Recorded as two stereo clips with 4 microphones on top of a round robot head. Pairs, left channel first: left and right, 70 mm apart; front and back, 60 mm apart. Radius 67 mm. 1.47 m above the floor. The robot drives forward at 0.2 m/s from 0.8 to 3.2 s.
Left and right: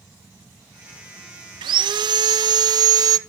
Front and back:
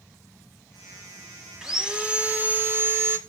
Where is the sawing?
95° right, 0.6 m; by 3.2 s 125° right, 0.7 m.